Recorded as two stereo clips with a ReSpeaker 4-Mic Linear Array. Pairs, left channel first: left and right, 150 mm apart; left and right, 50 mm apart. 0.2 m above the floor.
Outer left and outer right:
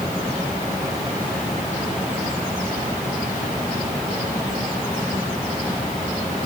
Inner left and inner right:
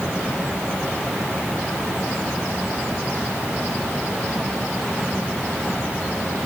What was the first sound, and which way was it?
Only background noise.